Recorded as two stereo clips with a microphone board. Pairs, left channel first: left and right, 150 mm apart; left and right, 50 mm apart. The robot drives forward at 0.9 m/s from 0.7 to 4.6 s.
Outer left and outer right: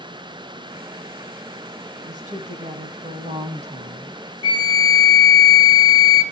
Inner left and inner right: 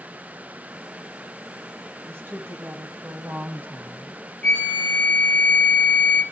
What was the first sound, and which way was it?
A woman speaking, 55° right (ahead or behind).